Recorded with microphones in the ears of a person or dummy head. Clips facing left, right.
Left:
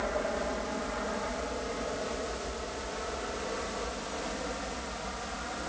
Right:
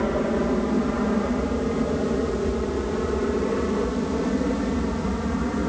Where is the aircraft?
60° right (ahead or behind); by 5.7 s 65° right (ahead or behind).